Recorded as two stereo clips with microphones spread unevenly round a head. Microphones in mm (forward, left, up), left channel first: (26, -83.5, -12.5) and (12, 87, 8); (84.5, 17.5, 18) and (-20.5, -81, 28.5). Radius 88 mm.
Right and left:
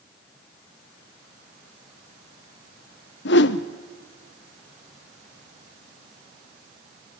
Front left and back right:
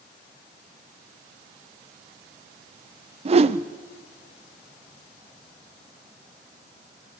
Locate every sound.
3.2 s a whoosh: 100° right, 0.9 m